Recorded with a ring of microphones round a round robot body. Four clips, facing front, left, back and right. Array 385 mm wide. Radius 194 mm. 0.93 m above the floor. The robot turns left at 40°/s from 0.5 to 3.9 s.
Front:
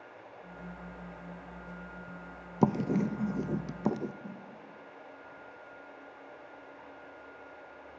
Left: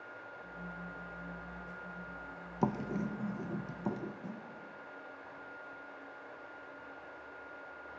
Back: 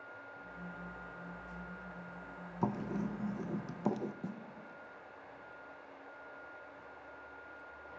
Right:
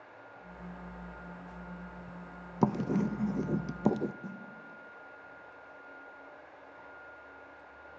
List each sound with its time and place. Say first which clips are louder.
2.6 s writing: right 5 dB, front 9 dB; 20° right, 0.5 m; by 4.1 s 70° right, 0.5 m
4.2 s a snare drum: right 1 dB, back 1 dB; 160° right, 1.7 m